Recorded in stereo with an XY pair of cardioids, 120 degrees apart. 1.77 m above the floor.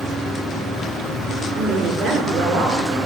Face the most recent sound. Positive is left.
turn(degrees=-55)